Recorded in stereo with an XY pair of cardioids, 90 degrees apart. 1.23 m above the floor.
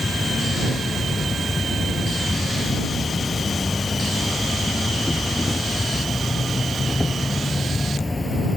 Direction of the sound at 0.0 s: 25° left.